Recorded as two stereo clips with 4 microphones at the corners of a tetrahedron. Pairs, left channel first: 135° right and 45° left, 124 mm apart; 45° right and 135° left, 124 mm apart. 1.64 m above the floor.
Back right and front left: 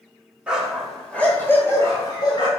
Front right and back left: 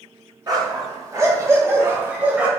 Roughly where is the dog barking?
Behind left.